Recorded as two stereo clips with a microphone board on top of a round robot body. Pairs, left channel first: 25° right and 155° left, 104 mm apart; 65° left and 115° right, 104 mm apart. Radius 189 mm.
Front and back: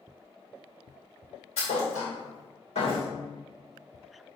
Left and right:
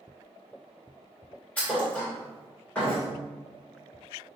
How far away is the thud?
About 2 m.